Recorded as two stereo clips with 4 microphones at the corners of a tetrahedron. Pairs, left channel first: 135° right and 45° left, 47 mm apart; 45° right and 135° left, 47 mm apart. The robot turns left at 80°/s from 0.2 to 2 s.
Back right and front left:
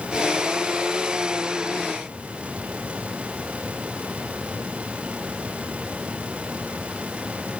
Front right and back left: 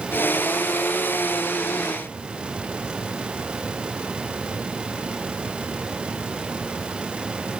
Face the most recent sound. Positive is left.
No sound to turn to.